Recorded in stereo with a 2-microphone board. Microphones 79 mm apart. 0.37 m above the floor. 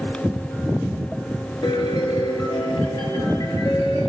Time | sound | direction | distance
1.6 | a piano | 75° left (ahead or behind) | 3.5 m